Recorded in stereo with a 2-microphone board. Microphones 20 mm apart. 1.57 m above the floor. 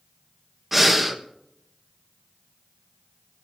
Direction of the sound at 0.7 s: 10° right (ahead or behind).